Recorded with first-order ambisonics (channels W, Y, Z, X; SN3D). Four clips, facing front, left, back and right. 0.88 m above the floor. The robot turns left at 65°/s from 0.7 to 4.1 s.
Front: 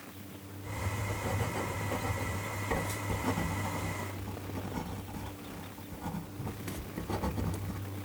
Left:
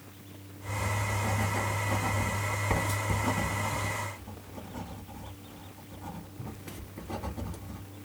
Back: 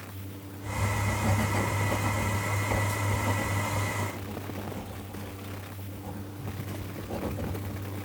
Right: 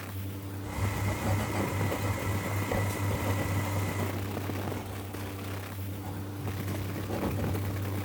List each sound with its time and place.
0.7 s writing: 130° right, 1.4 m; by 7.8 s 10° left, 1.4 m